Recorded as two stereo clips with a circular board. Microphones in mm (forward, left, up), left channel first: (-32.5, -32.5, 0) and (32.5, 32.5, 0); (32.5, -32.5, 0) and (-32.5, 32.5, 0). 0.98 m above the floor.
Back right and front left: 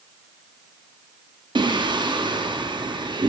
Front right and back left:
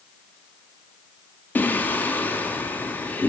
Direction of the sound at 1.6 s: 25° left.